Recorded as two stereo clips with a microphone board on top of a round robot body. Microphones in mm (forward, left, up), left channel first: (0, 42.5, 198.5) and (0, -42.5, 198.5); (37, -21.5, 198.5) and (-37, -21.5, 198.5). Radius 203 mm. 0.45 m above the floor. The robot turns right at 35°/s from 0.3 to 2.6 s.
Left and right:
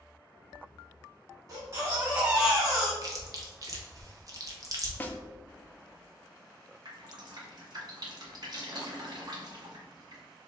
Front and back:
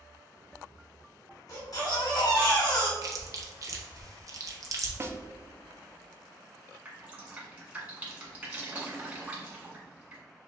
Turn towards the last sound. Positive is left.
turn(degrees=-110)